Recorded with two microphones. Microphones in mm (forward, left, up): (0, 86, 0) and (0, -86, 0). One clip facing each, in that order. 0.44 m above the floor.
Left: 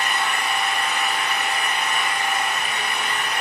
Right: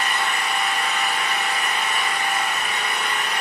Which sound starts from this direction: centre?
An engine running, at 0.0 s.